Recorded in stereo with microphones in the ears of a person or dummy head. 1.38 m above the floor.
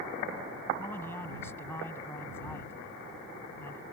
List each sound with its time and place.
0.8 s a man speaking: 10° left (ahead or behind)